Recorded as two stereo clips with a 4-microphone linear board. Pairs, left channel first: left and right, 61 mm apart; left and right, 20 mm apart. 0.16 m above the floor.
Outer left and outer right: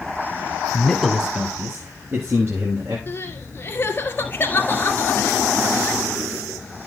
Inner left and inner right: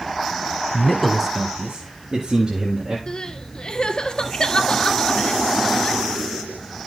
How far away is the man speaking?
About 1.1 m.